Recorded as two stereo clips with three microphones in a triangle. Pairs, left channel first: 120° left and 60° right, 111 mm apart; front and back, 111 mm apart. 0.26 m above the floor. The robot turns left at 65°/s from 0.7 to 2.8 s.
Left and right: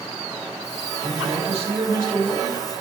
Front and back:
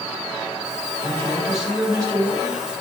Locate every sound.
1.0 s a man speaking: 55° right, 3 m; by 2.6 s 160° right, 3 m